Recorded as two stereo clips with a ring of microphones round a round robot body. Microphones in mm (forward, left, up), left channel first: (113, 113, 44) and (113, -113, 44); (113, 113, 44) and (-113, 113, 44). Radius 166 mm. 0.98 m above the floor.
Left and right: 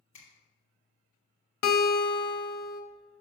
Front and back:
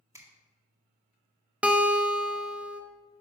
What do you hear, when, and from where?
0.1 s a finger snap: 105° left, 2 m
1.6 s a guitar: 95° left, 0.7 m